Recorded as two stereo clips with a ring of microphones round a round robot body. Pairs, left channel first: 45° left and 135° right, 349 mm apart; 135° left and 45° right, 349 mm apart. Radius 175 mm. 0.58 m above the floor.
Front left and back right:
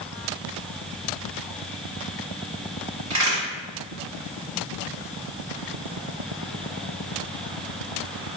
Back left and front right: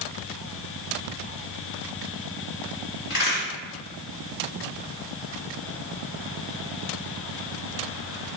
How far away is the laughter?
I don't hear laughter.